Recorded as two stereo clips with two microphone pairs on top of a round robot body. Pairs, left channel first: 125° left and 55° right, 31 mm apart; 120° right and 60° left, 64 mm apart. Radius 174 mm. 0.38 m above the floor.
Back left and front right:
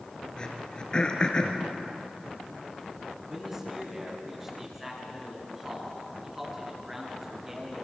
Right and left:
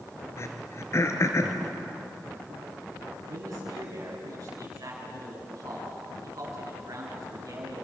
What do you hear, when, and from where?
0.4 s throat clearing: 170° right, 2.5 m
3.3 s a man speaking: 20° left, 8.5 m